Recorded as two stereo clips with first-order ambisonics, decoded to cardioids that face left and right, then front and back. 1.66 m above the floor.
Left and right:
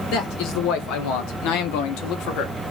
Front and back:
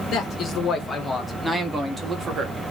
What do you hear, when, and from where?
0.1 s a man speaking: 60° left, 1.8 m; by 2.5 s 120° left, 1.4 m